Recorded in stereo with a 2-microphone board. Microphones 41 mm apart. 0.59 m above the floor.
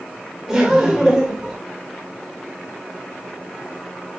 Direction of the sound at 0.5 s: 10° right (ahead or behind).